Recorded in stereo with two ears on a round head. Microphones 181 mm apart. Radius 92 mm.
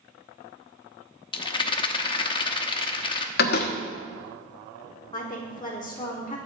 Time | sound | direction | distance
1.3 | a rattle | 25° left (ahead or behind) | 0.9 m
3.4 | a door slam | 50° left (ahead or behind) | 1.1 m
5.1 | a woman speaking | 20° left (ahead or behind) | 1.2 m